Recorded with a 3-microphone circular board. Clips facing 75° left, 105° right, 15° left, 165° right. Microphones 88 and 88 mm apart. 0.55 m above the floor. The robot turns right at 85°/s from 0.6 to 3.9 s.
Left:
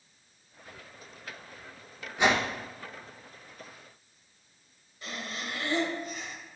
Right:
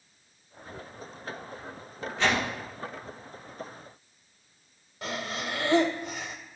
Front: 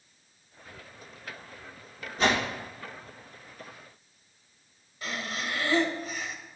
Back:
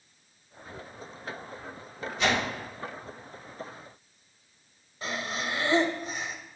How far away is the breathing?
About 0.8 m.